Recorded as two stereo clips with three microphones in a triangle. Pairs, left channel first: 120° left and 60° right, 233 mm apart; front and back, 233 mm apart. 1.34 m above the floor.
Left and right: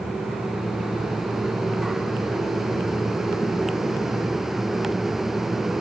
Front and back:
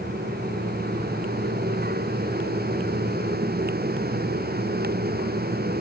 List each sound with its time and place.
Only background noise.